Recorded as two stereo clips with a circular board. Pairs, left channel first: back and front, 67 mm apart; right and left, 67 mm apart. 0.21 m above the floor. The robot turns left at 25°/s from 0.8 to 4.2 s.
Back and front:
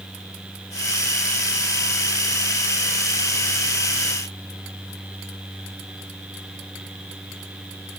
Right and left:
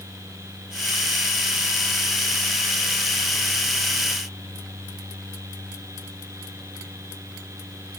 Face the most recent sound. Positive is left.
No sound to turn to.